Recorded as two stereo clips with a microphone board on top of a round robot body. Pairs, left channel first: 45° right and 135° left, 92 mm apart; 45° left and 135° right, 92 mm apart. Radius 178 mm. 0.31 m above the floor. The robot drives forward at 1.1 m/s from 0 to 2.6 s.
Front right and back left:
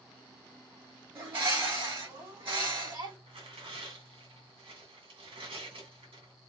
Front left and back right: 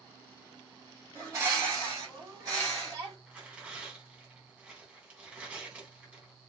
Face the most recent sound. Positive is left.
turn(degrees=150)